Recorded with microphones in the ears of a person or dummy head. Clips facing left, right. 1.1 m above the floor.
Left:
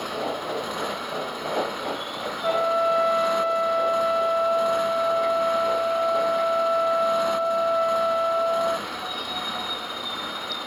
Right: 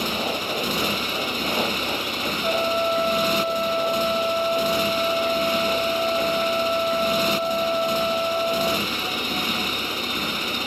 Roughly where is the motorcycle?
Right.